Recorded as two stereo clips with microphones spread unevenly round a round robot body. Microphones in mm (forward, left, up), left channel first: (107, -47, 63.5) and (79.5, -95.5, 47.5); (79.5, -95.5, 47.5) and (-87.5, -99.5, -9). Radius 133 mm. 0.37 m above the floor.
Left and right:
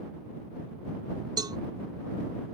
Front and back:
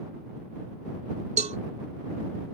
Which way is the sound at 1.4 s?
125° right.